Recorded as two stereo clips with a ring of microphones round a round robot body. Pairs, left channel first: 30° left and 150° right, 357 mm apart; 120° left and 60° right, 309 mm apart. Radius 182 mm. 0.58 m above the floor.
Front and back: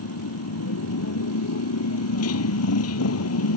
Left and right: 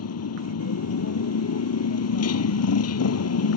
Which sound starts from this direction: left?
A motorcycle, at 0.0 s.